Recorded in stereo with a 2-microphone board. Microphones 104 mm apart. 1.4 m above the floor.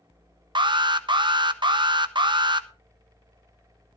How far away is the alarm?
About 0.7 m.